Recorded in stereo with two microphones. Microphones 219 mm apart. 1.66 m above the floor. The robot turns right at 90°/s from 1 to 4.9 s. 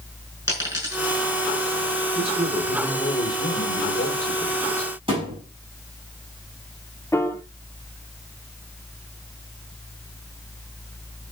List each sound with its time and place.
0.5 s a dropped coin: 15° right (ahead or behind), 5.5 m; by 1.2 s 35° right (ahead or behind), 5.5 m
2.1 s a man speaking: 60° right, 6 m; by 4.9 s 175° right, 6 m
5.1 s a thud: 25° right (ahead or behind), 5.5 m
7.1 s a piano: 10° left (ahead or behind), 0.8 m